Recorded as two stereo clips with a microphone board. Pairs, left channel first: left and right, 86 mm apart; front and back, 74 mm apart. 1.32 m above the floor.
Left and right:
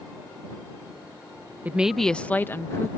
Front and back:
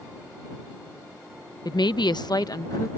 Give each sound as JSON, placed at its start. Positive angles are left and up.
{"t": 1.6, "sound": "a woman speaking", "azimuth_deg": -20}